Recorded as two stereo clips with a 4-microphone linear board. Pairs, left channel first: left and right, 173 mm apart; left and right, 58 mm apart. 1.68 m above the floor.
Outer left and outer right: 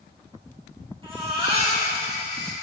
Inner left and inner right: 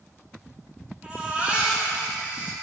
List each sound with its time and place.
1.0 s a baby crying: 30° right (ahead or behind), 2.5 m